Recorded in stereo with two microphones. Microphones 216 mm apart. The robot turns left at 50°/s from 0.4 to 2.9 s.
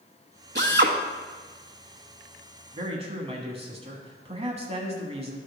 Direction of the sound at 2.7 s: 25° right (ahead or behind).